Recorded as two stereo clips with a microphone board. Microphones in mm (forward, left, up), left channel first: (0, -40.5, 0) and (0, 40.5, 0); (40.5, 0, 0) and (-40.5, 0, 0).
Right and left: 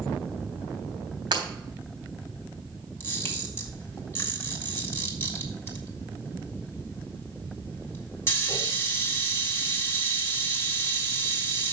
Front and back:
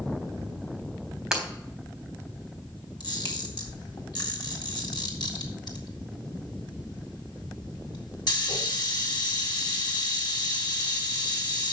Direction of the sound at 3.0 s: 30° right.